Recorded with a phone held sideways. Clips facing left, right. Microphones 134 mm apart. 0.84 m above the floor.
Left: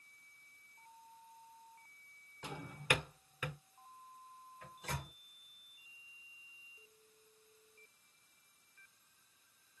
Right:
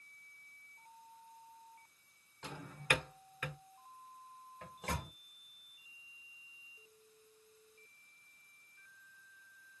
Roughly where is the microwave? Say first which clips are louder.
Right 4 dB; right.